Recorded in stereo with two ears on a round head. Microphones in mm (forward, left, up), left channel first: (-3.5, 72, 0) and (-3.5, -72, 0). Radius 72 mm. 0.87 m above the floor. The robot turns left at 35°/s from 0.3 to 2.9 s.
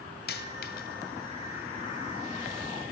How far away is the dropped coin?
About 1.2 m.